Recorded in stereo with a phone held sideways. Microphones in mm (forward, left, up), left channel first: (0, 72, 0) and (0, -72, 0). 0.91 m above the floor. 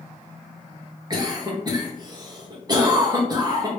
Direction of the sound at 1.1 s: 30° right (ahead or behind).